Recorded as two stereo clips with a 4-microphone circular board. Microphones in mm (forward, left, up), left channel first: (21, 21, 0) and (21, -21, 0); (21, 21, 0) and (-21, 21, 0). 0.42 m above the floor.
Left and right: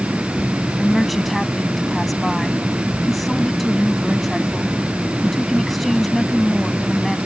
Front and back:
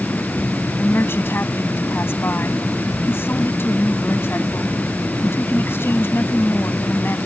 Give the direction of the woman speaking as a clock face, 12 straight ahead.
12 o'clock.